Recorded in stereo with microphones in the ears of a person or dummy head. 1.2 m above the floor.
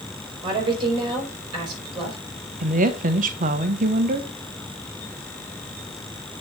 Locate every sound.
0.4 s a woman speaking: 30° right (ahead or behind), 5 m
2.6 s a woman speaking: 40° right (ahead or behind), 0.9 m